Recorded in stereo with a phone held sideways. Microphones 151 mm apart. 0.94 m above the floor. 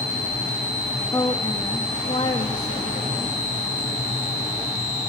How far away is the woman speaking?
About 1.6 m.